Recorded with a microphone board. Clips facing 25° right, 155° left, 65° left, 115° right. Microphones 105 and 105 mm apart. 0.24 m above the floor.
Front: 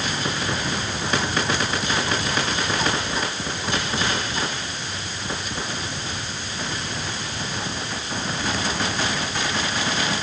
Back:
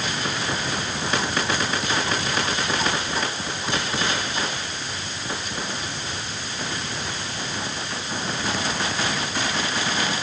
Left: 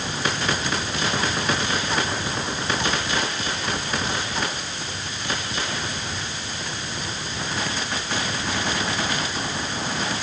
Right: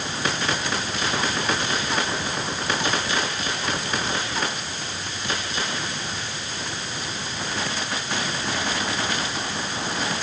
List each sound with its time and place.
Only background noise.